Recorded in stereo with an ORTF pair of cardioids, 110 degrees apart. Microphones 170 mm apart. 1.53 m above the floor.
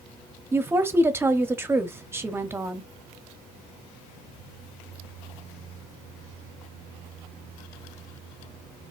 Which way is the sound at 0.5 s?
15° right.